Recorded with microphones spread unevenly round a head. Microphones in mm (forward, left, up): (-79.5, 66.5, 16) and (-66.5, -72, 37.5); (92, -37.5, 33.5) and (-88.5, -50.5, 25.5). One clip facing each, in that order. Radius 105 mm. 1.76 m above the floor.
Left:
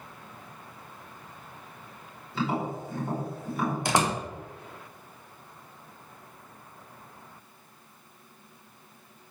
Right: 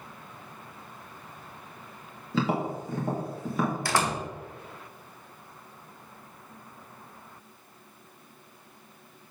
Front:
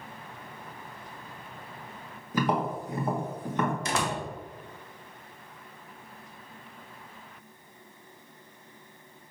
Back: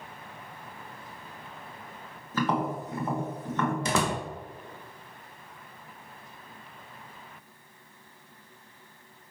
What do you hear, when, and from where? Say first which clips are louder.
2.3 s tapping: right 2 dB, front 1 dB; 70° right, 2 m
3.9 s a door slam: left 2 dB, back 3 dB; 170° left, 1.4 m